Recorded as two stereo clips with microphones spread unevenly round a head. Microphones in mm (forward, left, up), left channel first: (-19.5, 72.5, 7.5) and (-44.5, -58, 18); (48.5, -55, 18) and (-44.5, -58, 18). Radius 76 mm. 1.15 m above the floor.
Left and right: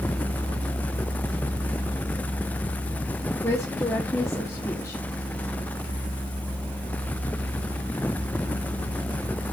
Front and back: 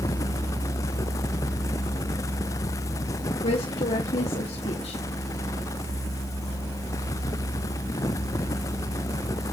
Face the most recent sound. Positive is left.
turn(degrees=5)